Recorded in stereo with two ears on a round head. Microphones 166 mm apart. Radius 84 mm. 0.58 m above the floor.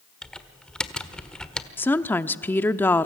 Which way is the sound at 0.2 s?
5° left (ahead or behind).